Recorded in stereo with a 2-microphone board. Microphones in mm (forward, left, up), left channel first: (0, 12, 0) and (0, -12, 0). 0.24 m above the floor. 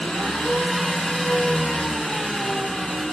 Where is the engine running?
55° left (ahead or behind), 0.8 m.